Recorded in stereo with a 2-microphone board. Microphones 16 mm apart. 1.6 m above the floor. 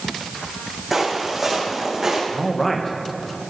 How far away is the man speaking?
About 1.6 m.